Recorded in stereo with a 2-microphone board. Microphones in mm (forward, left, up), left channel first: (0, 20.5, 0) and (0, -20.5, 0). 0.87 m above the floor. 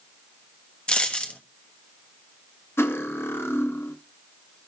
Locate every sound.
0.9 s a dropped coin: 25° left (ahead or behind), 1.0 m
2.8 s cutlery clinking: 80° left, 0.8 m